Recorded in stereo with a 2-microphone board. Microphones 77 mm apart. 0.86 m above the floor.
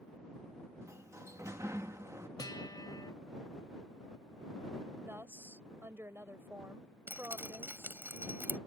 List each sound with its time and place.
0.8 s a sliding door: 40° right (ahead or behind)
2.4 s a guitar: 60° left (ahead or behind)
5.0 s a woman speaking: 30° right (ahead or behind)
7.1 s dripping: 25° right (ahead or behind)